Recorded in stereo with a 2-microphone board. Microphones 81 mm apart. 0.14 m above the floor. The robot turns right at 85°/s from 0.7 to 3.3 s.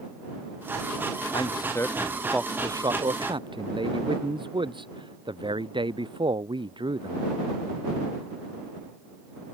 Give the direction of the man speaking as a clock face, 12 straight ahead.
8 o'clock.